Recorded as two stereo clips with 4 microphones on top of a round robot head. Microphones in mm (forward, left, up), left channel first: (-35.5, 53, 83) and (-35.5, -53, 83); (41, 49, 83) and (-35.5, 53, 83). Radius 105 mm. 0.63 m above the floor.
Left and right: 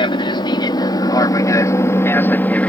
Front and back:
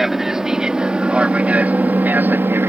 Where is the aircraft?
95° left; by 2.7 s 155° left.